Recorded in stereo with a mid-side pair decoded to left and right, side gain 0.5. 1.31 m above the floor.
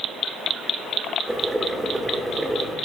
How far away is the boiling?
About 2 m.